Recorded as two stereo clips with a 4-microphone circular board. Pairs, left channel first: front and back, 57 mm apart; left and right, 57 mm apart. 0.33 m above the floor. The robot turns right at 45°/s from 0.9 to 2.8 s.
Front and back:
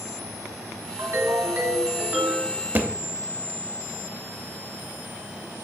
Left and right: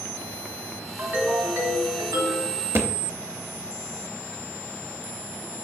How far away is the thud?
About 0.6 m.